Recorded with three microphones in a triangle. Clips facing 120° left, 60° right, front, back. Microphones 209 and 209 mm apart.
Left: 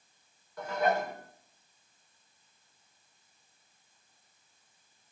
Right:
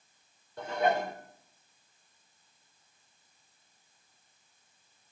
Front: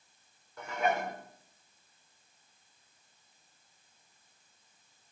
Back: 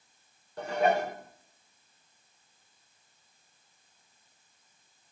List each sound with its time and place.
0.6 s dishes clattering: 125° right, 3.5 m